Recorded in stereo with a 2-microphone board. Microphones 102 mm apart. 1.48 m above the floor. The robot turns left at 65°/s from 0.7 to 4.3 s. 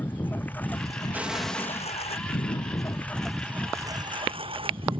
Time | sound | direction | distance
0.0 | a lawn mower | 20° left (ahead or behind) | ?
1.1 | an explosion | 160° right | ?